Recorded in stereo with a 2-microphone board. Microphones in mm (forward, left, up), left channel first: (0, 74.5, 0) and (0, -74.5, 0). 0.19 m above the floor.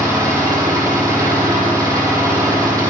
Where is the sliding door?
No sliding door in this recording.